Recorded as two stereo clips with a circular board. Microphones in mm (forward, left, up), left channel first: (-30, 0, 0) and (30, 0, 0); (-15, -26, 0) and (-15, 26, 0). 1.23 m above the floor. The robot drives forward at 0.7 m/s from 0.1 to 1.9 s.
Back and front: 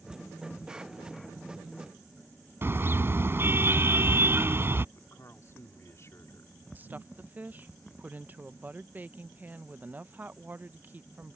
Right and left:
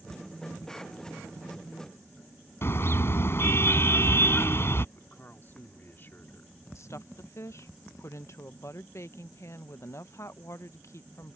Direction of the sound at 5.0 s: 140° right.